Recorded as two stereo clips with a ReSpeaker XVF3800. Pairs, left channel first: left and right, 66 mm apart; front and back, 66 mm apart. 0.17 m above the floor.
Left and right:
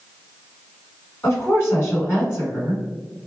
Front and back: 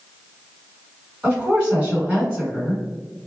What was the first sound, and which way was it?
A woman speaking, 115° left.